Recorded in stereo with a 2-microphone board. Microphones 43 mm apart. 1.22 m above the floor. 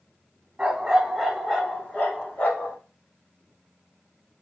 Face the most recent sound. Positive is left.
turn(degrees=50)  # may be behind; listen again after turning